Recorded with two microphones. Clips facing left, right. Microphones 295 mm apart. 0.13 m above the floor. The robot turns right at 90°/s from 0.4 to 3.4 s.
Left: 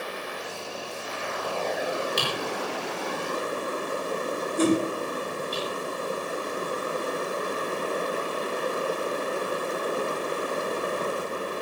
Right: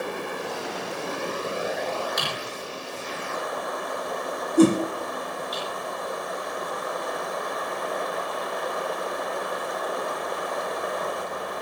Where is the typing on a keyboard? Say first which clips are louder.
Left 4 dB; 35° left (ahead or behind), 8 m.